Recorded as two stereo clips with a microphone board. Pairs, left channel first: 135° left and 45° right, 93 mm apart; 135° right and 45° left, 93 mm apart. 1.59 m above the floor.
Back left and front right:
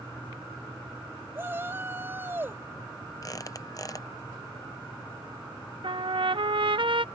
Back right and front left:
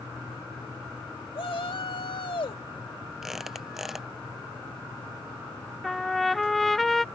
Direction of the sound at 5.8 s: 45° right.